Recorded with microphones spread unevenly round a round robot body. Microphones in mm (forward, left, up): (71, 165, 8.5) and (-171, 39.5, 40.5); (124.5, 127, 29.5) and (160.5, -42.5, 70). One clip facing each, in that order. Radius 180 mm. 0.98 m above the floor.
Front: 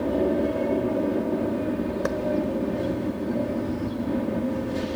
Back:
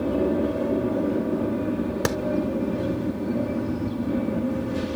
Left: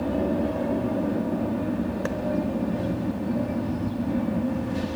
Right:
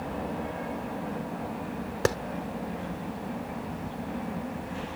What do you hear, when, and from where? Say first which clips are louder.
0.0 s an aircraft: even, left 10 dB; 125° left
2.0 s a clap: back 3 dB, right 2 dB; 120° right